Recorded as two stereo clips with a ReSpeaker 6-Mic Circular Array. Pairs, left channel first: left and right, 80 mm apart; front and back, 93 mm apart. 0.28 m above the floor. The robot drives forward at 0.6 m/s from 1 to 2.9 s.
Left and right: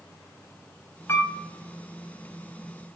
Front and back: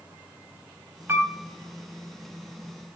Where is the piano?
130° left, 1.6 m; by 1.3 s 135° left, 1.6 m.